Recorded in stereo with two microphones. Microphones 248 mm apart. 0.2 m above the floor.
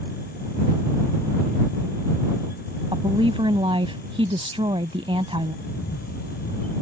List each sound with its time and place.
2.9 s a woman speaking: 20° right (ahead or behind)
5.7 s a camera shutter: 75° left (ahead or behind)